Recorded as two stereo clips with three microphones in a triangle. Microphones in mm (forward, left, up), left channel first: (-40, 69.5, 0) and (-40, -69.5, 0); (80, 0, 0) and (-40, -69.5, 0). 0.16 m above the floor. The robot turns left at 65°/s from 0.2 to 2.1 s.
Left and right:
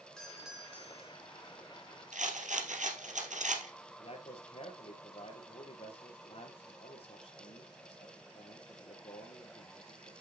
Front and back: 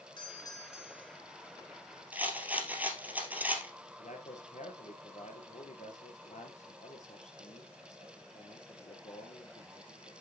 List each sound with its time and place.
0.2 s a doorbell: 10° left, 2.5 m; by 1.2 s 55° right, 2.5 m
2.1 s a rattle: 70° right, 2.5 m
4.0 s a man speaking: 50° left, 2.5 m